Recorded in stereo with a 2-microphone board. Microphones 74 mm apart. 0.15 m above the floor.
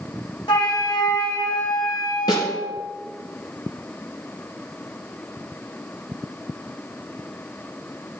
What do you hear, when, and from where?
0.5 s a flute: 85° left, 3.5 m
2.3 s a snare drum: 60° left (ahead or behind), 3.5 m